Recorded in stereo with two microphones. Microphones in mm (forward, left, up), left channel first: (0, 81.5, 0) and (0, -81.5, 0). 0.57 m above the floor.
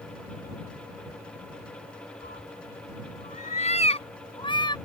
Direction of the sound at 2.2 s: 75° left (ahead or behind).